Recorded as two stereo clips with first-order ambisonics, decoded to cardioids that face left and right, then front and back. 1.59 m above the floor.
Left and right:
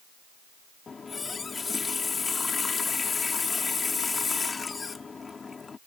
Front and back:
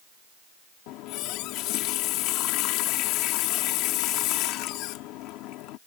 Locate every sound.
0.9 s a running tap: 20° left